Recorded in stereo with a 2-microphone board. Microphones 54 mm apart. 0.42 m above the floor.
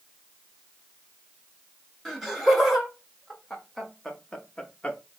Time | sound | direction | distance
2.0 | laughter | 5° right (ahead or behind) | 1.9 m